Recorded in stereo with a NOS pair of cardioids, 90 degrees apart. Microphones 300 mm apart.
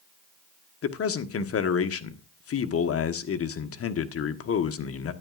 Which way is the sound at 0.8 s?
50° left.